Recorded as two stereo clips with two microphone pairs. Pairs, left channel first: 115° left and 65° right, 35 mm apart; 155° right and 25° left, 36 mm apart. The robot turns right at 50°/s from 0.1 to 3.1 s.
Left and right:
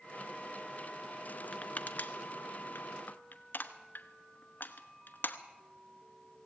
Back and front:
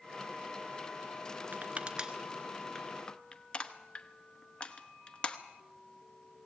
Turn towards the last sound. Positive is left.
turn(degrees=145)